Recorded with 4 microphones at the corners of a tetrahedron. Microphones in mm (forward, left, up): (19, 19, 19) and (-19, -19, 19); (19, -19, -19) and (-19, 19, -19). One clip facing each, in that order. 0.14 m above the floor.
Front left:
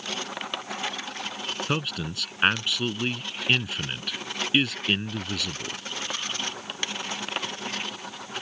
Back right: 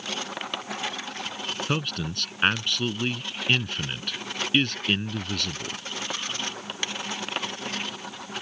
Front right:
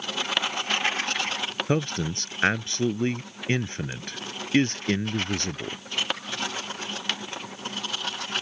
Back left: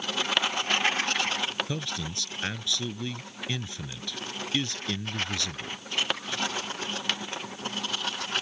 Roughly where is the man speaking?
Ahead right.